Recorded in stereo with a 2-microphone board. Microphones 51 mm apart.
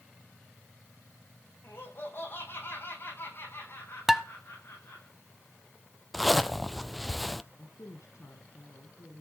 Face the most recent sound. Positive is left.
turn(degrees=75)  # may be behind; listen again after turning